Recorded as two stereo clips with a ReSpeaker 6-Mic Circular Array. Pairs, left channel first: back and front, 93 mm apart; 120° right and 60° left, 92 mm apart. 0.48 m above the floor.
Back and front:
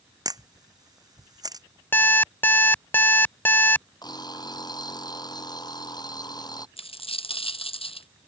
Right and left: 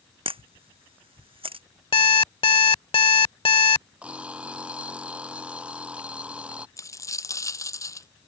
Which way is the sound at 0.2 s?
45° left.